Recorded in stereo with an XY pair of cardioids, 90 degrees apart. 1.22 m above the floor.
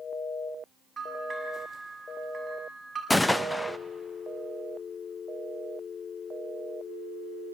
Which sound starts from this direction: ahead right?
A bell, at 1.0 s.